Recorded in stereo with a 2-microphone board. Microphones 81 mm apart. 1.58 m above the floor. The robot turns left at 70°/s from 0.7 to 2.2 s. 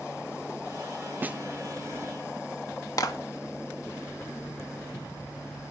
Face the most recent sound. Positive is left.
turn(degrees=45)  # may be behind; listen again after turning